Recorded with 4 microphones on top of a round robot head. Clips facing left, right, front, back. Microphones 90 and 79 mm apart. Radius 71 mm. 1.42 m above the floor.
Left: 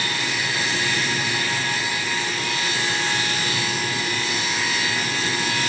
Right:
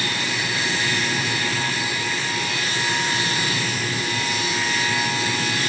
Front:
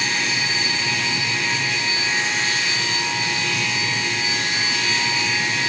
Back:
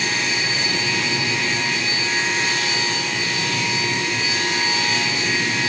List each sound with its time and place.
Only background noise.